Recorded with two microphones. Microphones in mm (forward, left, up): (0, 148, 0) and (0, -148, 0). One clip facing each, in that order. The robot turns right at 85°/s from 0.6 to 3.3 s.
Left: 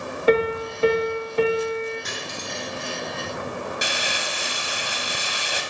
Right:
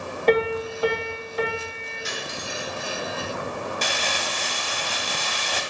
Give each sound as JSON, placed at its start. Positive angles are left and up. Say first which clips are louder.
{"t": 0.3, "sound": "a piano", "louder": "left 1 dB", "azimuth_deg": 10, "distance_m": 1.6}
{"t": 2.0, "sound": "cutlery clinking", "louder": "even", "side_deg": 60, "distance_m": 1.9}
{"t": 3.8, "sound": "crumpling", "louder": "right 1 dB", "side_deg": 10, "distance_m": 1.0}